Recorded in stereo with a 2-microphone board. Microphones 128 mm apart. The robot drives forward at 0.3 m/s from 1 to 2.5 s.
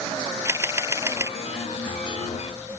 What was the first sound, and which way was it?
A camera shutter, 20° right (ahead or behind).